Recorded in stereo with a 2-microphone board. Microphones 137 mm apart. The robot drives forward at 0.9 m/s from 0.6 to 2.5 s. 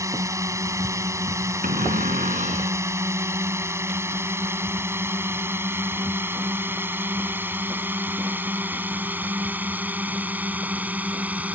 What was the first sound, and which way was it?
A drone, 20° right (ahead or behind).